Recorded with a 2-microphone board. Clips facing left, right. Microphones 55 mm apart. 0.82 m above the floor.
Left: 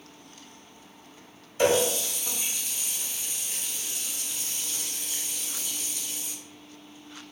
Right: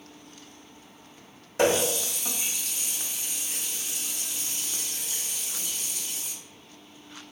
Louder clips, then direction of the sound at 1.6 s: Left 1 dB; 85° right.